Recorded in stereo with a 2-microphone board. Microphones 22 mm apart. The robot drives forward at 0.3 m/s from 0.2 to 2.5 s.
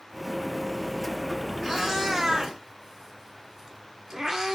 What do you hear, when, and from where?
1.6 s a cat meowing: 15° right (ahead or behind), 0.7 m; by 4.6 s 20° right (ahead or behind), 0.6 m